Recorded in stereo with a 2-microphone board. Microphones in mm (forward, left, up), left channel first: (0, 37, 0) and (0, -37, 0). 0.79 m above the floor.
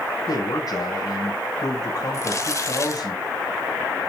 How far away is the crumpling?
About 1.2 m.